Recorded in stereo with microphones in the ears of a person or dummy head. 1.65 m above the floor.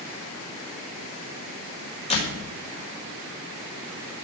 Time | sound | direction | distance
2.1 | a door slam | 30° left (ahead or behind) | 4.5 m